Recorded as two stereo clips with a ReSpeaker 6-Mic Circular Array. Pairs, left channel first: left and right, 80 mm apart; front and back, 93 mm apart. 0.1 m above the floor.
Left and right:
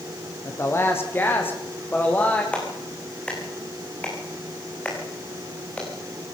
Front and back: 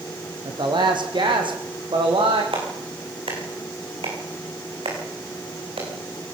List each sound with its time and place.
0.5 s a woman speaking: 145° left, 4.5 m; by 2.4 s 160° left, 5.5 m
2.5 s a clap: 165° left, 7 m